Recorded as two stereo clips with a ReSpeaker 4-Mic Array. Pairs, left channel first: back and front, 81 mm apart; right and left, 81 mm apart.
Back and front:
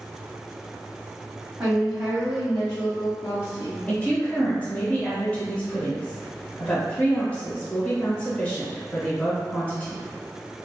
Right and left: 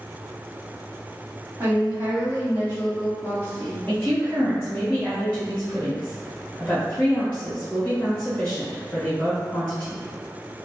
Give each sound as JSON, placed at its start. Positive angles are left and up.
{"t": 1.6, "sound": "a woman speaking", "azimuth_deg": 65, "distance_m": 1.6}
{"t": 3.9, "sound": "a woman speaking", "azimuth_deg": -145, "distance_m": 1.1}